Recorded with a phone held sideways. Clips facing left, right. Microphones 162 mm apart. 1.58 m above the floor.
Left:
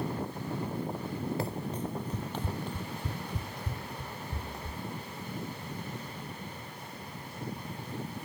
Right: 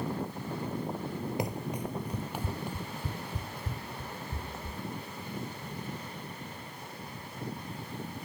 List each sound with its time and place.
1.4 s running footsteps: 15° right (ahead or behind); by 4.8 s 5° right (ahead or behind)